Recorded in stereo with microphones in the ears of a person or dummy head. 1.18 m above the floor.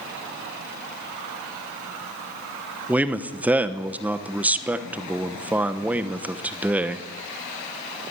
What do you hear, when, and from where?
2.9 s a man speaking: 10° right (ahead or behind), 0.9 m